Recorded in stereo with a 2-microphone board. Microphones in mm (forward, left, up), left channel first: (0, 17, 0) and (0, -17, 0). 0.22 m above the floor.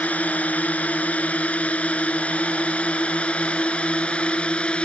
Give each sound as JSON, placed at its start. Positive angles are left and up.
{"t": 0.0, "sound": "a drone", "side_deg": 45}